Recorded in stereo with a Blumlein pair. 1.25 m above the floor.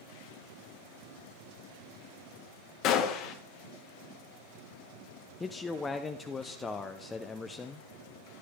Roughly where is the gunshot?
Ahead left.